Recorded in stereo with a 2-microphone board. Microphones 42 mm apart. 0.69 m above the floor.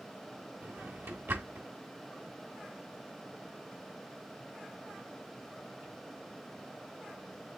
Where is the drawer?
60° right (ahead or behind), 1.1 m.